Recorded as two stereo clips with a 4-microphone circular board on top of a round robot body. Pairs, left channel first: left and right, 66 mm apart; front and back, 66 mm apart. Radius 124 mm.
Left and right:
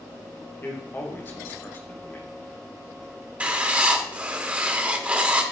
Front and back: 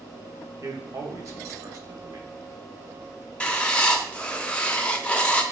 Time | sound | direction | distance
0.6 | a man speaking | 145° left | 2.5 m
3.4 | writing | 50° right | 1.3 m